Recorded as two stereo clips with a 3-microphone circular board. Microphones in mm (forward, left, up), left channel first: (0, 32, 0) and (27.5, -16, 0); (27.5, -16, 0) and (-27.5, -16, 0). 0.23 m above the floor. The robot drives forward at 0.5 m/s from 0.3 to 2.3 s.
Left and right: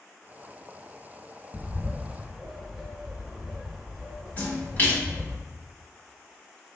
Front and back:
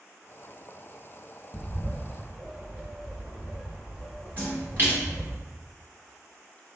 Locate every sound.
1.5 s a bird: 70° right, 0.7 m; by 5.4 s 140° right, 0.8 m
4.4 s a splash: 155° left, 1.7 m